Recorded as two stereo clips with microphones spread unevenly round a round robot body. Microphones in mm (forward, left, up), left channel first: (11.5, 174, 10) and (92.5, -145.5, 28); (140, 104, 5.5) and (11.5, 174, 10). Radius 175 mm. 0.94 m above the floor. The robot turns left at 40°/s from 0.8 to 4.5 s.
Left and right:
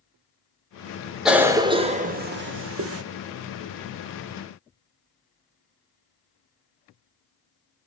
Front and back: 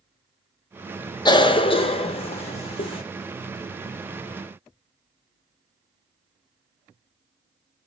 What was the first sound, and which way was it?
A cough, 15° left.